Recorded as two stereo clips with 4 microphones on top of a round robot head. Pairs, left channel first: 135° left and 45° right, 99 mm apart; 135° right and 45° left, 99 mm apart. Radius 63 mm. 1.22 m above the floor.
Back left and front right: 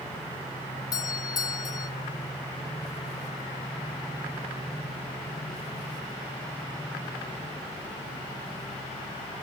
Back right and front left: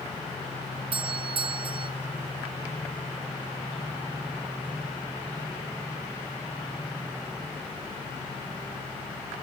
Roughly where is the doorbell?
Left.